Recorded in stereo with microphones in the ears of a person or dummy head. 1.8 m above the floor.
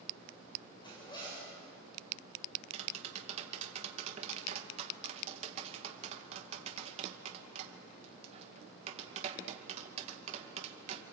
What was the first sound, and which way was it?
A zipper, 20° left (ahead or behind).